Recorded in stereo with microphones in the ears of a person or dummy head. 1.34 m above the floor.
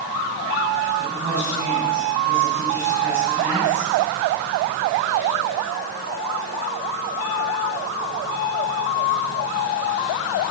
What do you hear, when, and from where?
1.0 s a woman speaking: 5° right (ahead or behind), 7.5 m